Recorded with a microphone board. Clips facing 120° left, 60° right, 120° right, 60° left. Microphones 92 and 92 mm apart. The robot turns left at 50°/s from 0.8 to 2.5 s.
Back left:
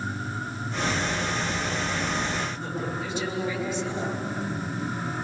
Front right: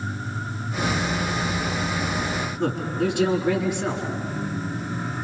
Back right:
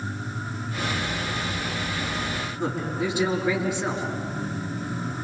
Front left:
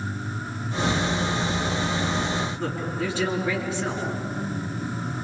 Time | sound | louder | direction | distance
2.6 | a man speaking | front right 7 dB, back right 1 dB | 40° right | 5 m